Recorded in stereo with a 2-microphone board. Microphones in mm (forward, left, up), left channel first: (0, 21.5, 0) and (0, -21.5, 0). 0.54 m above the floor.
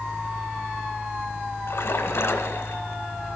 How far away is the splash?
About 0.9 m.